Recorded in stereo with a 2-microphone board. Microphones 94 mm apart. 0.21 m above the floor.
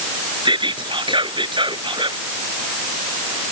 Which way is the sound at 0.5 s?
60° right (ahead or behind).